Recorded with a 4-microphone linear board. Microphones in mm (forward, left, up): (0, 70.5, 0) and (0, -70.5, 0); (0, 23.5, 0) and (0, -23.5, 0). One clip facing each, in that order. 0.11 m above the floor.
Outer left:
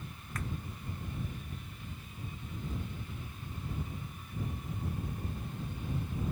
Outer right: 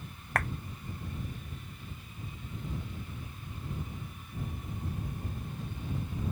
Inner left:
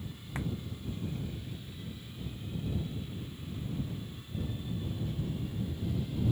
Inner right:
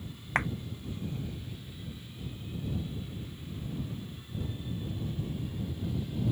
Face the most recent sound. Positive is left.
turn(degrees=-70)  # may be behind; listen again after turning